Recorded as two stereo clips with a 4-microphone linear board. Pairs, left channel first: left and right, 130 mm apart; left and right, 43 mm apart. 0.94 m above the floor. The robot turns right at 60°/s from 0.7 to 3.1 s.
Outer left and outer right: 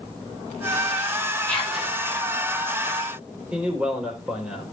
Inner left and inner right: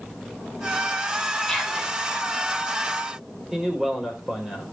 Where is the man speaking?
10° right (ahead or behind), 3.5 m.